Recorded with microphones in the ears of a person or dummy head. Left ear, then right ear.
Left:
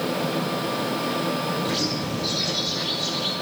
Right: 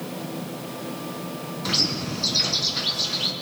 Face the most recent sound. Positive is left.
turn(degrees=-70)  # may be behind; listen again after turning